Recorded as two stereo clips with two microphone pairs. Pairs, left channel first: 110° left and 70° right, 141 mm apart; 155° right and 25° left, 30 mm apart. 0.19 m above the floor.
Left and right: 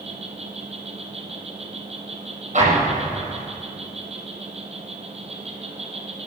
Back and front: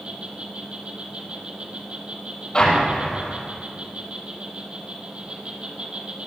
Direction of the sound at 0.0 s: 30° right.